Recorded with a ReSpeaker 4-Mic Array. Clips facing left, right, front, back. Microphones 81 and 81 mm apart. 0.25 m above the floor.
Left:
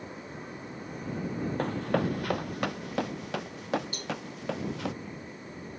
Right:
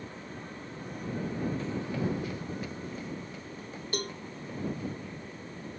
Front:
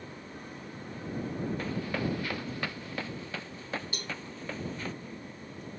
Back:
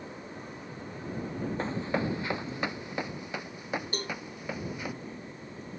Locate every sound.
1.6 s running footsteps: 120° left; by 4.9 s 100° left
3.9 s a cowbell: 130° right